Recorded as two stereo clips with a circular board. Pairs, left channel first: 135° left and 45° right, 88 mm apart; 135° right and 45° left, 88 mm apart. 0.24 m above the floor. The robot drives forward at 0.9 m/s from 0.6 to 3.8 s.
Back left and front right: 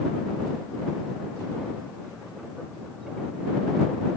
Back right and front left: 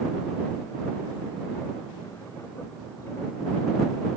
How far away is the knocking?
No knocking in this recording.